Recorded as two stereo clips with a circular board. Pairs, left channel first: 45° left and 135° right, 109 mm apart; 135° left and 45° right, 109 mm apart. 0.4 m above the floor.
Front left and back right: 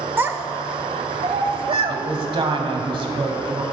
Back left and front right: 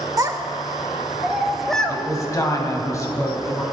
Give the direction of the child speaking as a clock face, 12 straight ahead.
3 o'clock.